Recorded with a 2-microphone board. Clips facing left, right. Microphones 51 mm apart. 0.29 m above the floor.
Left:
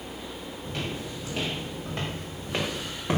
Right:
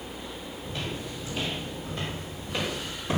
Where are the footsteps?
60° left (ahead or behind), 6 m; by 3.2 s 40° left (ahead or behind), 4.5 m.